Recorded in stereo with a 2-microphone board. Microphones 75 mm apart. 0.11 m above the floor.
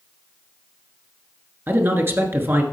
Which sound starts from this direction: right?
A man speaking, at 1.7 s.